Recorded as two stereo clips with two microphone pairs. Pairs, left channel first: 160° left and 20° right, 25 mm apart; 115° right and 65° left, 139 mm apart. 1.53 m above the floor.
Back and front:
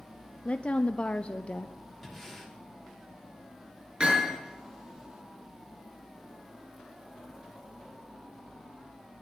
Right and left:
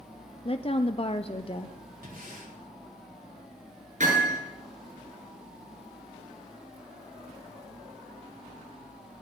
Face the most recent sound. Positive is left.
turn(degrees=40)